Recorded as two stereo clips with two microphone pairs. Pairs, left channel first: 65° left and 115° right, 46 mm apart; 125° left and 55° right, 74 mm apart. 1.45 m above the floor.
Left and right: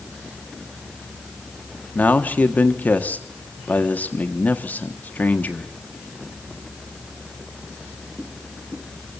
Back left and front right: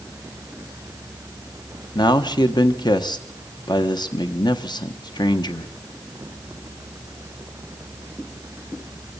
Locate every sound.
1.9 s a man speaking: 115° left, 1.3 m